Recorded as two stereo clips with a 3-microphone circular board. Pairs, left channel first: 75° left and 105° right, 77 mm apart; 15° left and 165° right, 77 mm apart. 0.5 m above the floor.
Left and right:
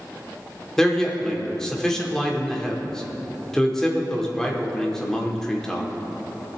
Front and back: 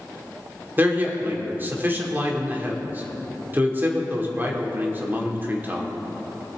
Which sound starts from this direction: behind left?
A man speaking, at 0.8 s.